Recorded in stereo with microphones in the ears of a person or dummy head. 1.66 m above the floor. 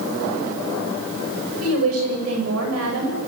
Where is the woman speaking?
75° right (ahead or behind), 8.5 m.